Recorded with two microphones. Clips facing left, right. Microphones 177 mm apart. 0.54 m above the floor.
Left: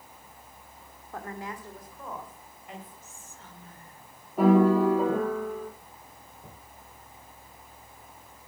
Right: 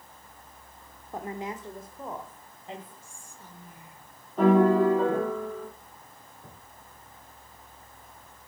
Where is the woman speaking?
20° right (ahead or behind), 1.4 m; by 2.9 s 30° right (ahead or behind), 3 m.